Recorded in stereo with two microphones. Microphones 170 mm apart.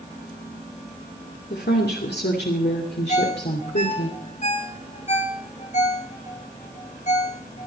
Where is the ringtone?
45° left (ahead or behind), 1.9 m.